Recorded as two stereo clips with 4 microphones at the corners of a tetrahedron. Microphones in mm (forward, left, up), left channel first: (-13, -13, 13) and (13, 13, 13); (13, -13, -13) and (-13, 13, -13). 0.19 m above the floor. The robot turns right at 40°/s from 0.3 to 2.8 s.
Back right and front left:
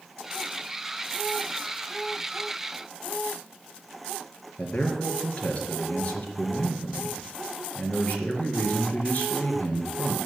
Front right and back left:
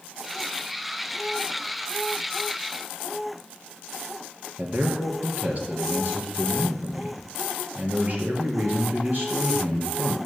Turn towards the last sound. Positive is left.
turn(degrees=175)